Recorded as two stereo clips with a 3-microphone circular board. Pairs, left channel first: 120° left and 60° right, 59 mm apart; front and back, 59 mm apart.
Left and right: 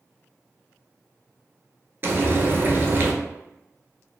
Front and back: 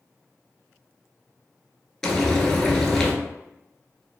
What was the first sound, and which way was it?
Frying, 75° right.